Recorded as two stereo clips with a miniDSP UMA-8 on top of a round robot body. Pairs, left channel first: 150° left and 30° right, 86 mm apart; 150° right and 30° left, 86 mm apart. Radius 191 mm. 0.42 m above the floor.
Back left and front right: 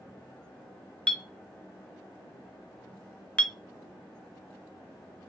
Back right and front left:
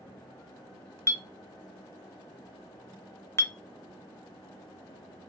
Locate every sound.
1.1 s a clink: 145° right, 0.6 m